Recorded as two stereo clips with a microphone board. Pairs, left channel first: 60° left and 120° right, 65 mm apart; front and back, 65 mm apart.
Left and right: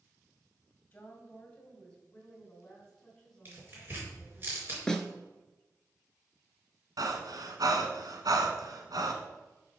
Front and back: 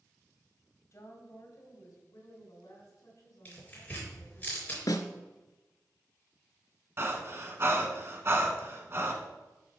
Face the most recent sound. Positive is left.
turn(degrees=-130)